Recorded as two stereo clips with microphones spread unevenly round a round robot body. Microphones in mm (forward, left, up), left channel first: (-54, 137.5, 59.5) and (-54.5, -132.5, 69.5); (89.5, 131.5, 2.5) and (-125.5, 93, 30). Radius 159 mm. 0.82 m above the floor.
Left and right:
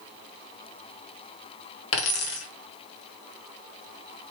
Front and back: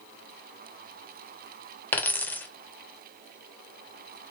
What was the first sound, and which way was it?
A dropped coin, 95° left.